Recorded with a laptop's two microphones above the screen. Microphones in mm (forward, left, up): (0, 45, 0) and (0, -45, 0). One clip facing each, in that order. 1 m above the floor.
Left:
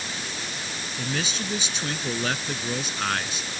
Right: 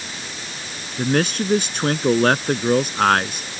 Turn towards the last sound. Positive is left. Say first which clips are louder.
# right 11 dB
turn(degrees=-55)  # may be behind; listen again after turning